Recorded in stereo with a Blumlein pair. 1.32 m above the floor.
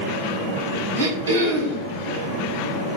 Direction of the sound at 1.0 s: 70° right.